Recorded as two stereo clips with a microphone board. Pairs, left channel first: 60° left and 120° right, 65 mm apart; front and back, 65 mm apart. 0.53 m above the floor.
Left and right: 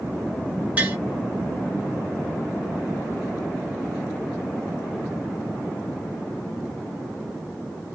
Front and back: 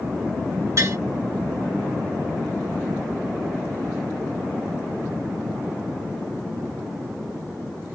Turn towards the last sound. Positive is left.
turn(degrees=180)